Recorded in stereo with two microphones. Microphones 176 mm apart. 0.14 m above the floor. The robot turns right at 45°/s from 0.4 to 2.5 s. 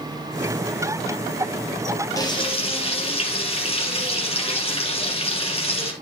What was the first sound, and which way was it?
Frying, 20° left (ahead or behind).